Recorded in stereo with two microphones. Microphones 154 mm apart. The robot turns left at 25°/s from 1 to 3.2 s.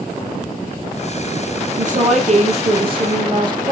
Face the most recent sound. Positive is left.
turn(degrees=-145)